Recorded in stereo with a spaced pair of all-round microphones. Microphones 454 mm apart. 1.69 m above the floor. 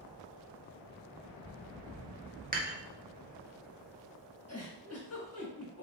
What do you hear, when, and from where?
2.5 s dishes clattering: 20° right (ahead or behind), 0.7 m
4.5 s a giggle: 30° left (ahead or behind), 1.0 m